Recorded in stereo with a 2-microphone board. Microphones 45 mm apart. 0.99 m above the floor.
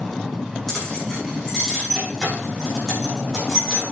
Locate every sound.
0.7 s keys jangling: 5° left (ahead or behind), 6 m